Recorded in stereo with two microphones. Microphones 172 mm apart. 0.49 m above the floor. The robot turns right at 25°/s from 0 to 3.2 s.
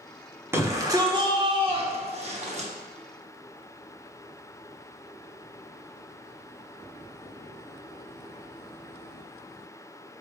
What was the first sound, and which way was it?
A shout, 160° right.